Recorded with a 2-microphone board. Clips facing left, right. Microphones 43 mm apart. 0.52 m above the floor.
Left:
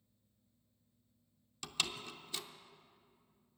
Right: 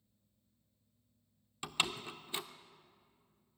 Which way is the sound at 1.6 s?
20° right (ahead or behind).